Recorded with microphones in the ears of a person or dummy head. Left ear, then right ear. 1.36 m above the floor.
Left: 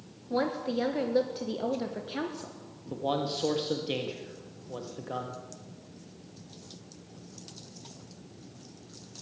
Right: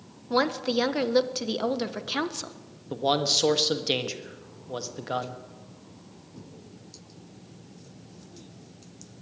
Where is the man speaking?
40° right (ahead or behind), 1.5 m.